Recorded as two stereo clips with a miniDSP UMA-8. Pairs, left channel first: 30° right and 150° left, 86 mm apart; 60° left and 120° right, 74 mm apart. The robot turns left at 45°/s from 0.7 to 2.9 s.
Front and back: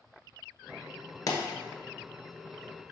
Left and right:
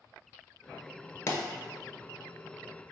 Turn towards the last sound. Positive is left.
turn(degrees=-60)